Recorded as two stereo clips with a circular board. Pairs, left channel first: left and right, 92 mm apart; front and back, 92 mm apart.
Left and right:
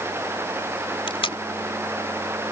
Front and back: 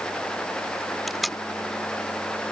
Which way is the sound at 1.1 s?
90° left.